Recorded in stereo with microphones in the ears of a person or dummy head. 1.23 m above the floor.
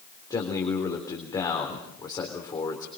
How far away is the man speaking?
About 3.5 m.